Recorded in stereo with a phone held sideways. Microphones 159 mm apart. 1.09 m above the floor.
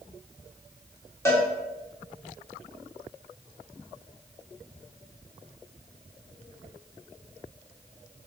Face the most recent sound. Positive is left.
turn(degrees=15)  # may be behind; listen again after turning